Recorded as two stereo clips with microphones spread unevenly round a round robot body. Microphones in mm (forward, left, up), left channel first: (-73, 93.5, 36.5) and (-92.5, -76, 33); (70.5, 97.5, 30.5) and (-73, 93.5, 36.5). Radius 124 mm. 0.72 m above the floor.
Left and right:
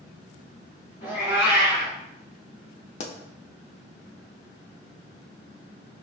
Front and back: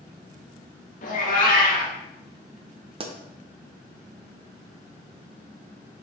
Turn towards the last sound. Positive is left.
turn(degrees=130)